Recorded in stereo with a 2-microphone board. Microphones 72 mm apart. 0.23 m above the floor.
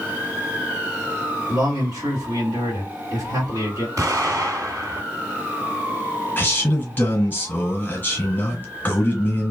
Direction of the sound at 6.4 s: 25° left (ahead or behind).